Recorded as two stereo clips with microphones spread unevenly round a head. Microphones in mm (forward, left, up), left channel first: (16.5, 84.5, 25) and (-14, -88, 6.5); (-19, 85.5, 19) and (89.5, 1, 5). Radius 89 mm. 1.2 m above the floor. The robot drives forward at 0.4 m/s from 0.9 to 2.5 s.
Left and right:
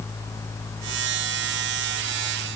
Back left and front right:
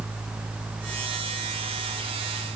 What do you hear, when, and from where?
Only background noise.